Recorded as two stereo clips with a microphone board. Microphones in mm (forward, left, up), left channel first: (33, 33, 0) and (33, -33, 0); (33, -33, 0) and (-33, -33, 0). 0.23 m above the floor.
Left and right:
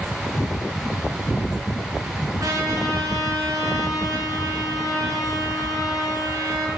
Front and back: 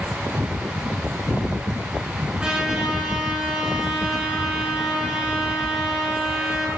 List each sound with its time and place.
2.4 s a trumpet: 105° right, 2.5 m